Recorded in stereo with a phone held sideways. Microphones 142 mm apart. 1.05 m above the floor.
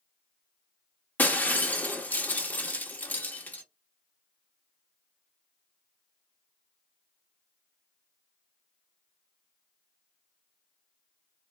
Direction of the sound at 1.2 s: 10° left (ahead or behind).